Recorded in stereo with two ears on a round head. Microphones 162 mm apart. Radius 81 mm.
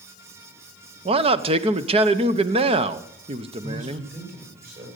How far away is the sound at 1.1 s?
About 0.8 m.